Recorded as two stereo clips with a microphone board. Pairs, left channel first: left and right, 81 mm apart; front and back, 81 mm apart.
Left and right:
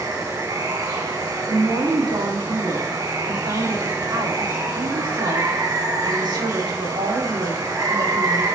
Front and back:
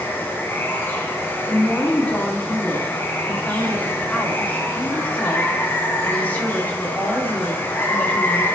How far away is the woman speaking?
About 4.5 m.